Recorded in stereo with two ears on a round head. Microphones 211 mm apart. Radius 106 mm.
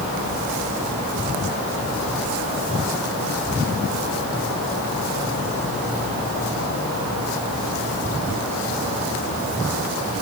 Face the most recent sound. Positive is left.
No sound to turn to.